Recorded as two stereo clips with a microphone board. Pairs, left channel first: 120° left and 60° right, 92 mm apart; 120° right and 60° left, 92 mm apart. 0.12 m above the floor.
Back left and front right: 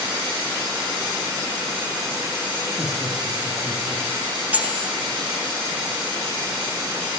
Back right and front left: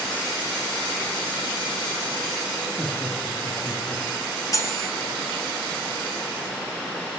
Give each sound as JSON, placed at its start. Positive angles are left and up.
{"t": 2.8, "sound": "laughter", "azimuth_deg": -10, "distance_m": 2.5}
{"t": 4.5, "sound": "cutlery clinking", "azimuth_deg": -115, "distance_m": 0.8}